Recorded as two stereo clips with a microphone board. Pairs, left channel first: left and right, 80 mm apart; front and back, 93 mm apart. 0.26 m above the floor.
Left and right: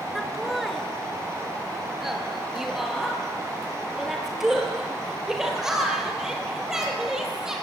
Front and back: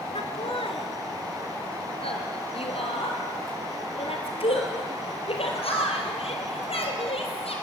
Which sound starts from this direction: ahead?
Laughter, at 0.1 s.